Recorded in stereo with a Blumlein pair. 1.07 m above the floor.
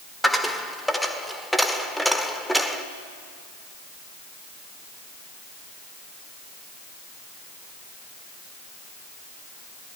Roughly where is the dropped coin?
Ahead.